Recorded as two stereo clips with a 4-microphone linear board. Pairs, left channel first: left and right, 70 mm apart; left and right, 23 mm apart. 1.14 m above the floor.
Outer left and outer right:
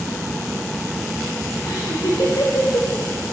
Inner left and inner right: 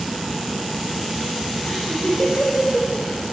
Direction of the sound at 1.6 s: 50° left (ahead or behind).